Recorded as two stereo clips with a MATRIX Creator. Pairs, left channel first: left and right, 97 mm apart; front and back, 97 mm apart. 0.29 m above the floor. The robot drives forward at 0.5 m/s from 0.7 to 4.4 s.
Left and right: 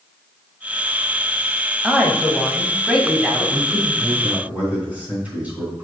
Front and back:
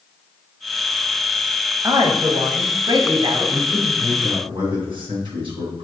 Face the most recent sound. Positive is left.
turn(degrees=-165)